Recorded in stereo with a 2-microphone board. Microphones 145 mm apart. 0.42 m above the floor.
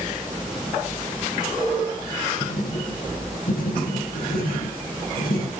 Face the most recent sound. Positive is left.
turn(degrees=75)  # may be behind; listen again after turning